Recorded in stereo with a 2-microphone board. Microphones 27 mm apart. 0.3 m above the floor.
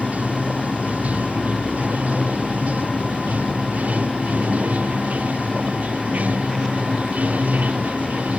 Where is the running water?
70° right (ahead or behind).